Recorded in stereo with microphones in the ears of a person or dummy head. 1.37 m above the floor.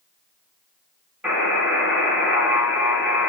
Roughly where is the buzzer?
Centre.